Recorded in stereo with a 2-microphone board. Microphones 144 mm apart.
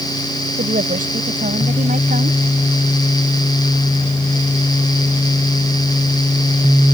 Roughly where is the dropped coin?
I don't hear a dropped coin.